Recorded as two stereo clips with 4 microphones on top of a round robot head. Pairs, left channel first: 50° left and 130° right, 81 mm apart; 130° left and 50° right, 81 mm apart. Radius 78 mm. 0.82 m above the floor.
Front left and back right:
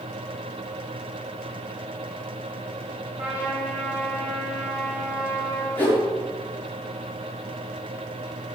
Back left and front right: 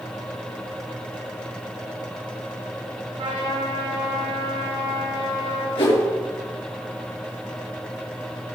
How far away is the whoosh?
About 5.5 m.